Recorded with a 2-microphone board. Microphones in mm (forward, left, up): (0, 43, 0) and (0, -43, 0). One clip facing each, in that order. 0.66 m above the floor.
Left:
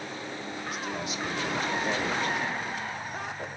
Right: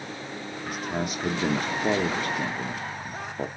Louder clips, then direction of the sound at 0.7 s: Right 5 dB; 50° right (ahead or behind).